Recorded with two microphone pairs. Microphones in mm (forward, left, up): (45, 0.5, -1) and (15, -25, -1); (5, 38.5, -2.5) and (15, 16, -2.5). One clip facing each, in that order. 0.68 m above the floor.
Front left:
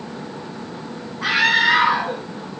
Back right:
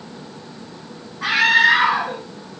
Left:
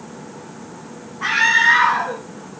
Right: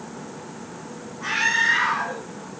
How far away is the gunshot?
No gunshot in this recording.